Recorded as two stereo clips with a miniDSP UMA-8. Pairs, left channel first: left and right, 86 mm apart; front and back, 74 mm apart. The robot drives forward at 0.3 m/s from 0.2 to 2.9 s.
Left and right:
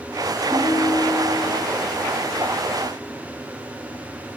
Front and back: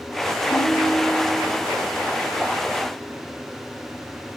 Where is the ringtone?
30° right, 1.1 m; by 1.6 s 45° right, 0.9 m.